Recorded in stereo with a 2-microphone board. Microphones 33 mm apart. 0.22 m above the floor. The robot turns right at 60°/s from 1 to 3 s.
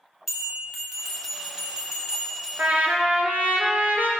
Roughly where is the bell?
Behind.